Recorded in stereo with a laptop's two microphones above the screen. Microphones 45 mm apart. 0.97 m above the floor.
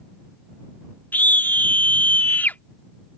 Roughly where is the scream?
Left.